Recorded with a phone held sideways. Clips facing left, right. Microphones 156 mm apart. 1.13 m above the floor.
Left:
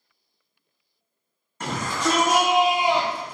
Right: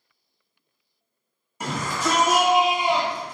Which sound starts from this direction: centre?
A shout, at 1.6 s.